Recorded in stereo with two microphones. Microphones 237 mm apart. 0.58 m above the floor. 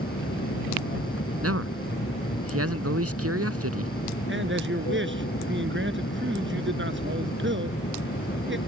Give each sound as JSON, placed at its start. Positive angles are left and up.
{"t": 0.0, "sound": "an aircraft", "side_deg": 55}
{"t": 1.4, "sound": "a man speaking", "side_deg": -80}
{"t": 4.3, "sound": "a man speaking", "side_deg": -55}